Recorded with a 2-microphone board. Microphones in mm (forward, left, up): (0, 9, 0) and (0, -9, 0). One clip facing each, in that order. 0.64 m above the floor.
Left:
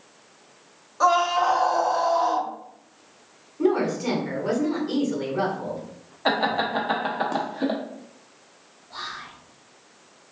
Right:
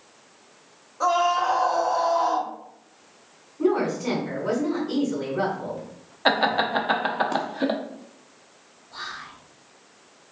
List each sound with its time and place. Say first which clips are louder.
1.0 s a scream: left 1 dB; 40° left (ahead or behind), 0.9 m; by 2.5 s 10° left (ahead or behind), 1.2 m
3.6 s a woman speaking: even; 40° left (ahead or behind), 1.7 m
6.2 s laughter: right 2 dB; 20° right (ahead or behind), 0.6 m
8.9 s whispering: left 1 dB; 40° left (ahead or behind), 1.4 m